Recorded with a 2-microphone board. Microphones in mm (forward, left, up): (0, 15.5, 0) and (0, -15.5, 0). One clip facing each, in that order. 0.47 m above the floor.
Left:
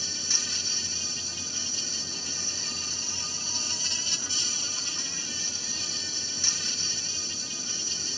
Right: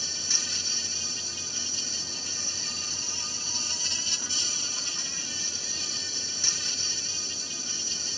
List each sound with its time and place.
0.0 s an insect: centre (ahead or behind)